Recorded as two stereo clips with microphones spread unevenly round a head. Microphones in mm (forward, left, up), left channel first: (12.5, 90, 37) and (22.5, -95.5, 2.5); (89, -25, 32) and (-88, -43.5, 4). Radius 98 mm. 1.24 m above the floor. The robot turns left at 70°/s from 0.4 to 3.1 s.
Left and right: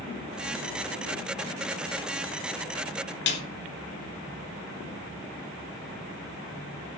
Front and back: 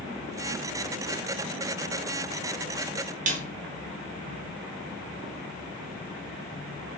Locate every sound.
3.3 s a snare drum: 130° left, 3.5 m